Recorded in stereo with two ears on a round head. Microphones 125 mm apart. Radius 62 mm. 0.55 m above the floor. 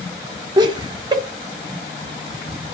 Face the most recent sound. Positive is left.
turn(degrees=-30)  # may be behind; listen again after turning